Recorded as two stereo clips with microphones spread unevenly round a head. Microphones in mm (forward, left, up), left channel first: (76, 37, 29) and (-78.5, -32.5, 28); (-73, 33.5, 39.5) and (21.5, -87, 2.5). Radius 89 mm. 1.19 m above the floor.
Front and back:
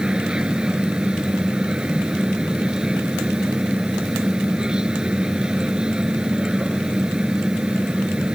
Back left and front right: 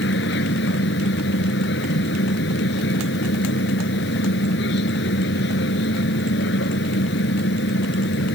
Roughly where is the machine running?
Behind left.